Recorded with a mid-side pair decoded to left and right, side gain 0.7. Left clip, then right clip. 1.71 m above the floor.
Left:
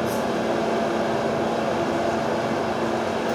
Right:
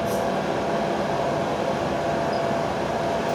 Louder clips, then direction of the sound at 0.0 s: Even; straight ahead.